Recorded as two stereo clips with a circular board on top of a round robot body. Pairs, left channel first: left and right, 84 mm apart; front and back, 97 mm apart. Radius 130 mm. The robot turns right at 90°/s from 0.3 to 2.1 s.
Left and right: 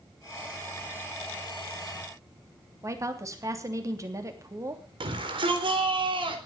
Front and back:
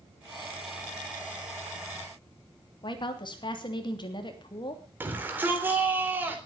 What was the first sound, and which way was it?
A woman speaking, 35° right.